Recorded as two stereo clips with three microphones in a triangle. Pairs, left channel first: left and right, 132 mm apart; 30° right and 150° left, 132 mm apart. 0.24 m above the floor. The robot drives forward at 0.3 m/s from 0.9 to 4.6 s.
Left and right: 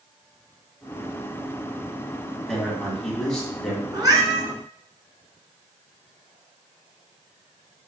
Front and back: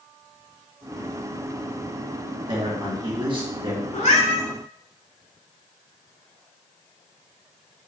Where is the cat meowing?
30° right, 1.1 m; by 4.5 s 35° right, 1.0 m.